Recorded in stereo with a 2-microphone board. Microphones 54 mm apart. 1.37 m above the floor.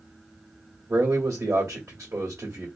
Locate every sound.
0.9 s a man speaking: 55° right (ahead or behind), 1.2 m